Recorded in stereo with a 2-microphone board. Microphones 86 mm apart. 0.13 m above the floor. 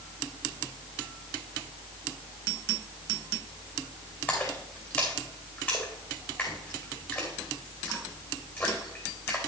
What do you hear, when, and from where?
4.3 s a splash: 20° left (ahead or behind), 3 m